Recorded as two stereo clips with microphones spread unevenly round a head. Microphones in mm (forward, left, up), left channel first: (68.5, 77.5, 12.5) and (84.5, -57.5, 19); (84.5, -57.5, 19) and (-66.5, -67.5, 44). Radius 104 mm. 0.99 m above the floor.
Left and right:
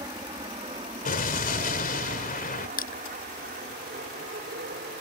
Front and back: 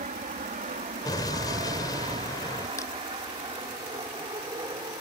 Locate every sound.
0.0 s an aircraft: 150° right; by 5.0 s 115° right
1.1 s an explosion: 80° left
2.8 s crushing: 80° left